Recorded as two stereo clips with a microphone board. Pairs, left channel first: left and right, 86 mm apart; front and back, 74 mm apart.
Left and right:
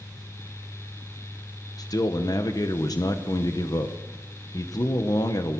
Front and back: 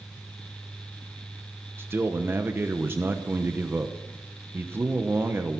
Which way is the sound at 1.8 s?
125° left.